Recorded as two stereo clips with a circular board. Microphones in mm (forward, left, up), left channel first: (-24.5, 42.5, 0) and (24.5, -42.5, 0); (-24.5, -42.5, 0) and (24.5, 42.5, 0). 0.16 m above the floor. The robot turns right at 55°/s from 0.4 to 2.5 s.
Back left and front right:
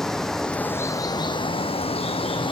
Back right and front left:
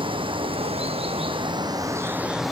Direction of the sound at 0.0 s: 35° left.